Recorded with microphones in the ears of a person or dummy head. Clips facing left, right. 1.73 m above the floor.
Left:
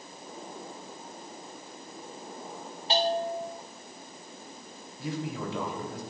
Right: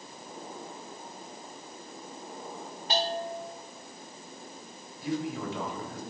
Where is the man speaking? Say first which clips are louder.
Right 2 dB; 75° left (ahead or behind), 3 m.